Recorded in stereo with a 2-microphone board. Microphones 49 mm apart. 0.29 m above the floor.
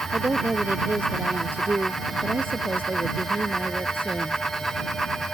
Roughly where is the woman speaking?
Right.